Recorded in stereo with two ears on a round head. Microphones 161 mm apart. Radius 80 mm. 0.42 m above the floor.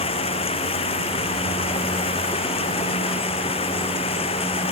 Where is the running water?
35° left (ahead or behind).